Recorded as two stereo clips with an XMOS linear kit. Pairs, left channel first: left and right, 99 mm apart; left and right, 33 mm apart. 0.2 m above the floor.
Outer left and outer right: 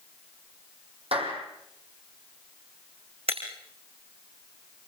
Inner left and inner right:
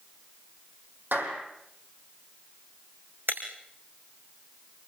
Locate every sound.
1.1 s a clap: 75° right (ahead or behind), 6.5 m
3.3 s breaking glass: 85° right, 5.5 m